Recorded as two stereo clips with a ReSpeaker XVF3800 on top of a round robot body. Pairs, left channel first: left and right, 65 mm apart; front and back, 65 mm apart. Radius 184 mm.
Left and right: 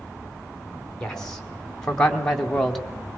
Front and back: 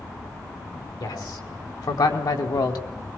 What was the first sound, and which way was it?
A man speaking, 10° left.